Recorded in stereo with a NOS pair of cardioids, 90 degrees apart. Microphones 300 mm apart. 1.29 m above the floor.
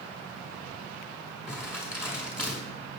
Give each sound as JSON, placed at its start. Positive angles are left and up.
{"t": 1.5, "sound": "crumpling", "azimuth_deg": 0, "distance_m": 5.0}